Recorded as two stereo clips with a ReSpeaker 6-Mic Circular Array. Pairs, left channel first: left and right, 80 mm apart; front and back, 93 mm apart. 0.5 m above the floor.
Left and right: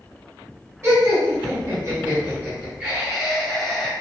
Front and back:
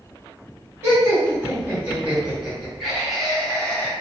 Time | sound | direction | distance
0.8 | laughter | 125° right | 1.6 m